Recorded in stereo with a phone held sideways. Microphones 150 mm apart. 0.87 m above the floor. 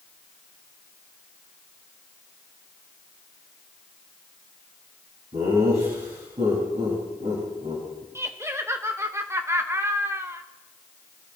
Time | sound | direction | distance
5.3 | laughter | 55° right (ahead or behind) | 5.5 m
8.2 | laughter | 20° right (ahead or behind) | 0.9 m